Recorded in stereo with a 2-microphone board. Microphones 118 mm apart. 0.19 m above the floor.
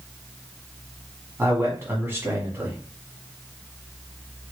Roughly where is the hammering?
No hammering in this recording.